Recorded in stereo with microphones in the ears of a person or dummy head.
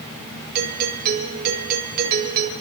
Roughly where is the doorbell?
Right.